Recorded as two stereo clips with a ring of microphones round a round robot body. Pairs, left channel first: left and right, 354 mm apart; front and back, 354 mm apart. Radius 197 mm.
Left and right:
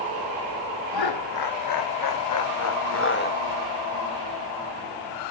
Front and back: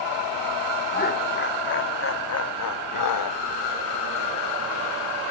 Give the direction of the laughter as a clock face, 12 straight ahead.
10 o'clock.